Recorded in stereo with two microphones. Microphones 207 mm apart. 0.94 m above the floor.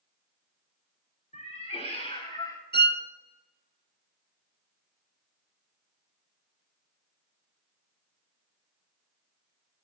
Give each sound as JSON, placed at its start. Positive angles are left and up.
{"t": 1.3, "sound": "a cat meowing", "side_deg": 35, "distance_m": 1.7}
{"t": 2.7, "sound": "a violin", "side_deg": -50, "distance_m": 0.6}